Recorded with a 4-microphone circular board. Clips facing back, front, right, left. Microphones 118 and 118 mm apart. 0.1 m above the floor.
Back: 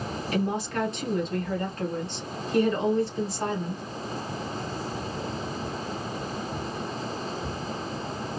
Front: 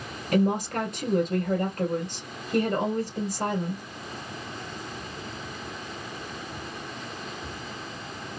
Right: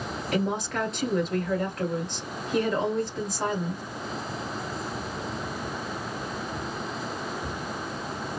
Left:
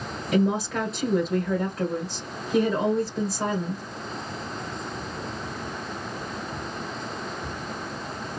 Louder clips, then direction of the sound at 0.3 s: Front 4 dB, left 5 dB; 5° left.